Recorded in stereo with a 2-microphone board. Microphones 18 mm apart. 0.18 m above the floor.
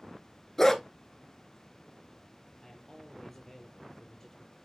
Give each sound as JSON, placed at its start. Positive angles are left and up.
{"t": 0.6, "sound": "a dog barking", "side_deg": 20, "distance_m": 0.8}
{"t": 2.6, "sound": "a man speaking", "side_deg": 15, "distance_m": 5.5}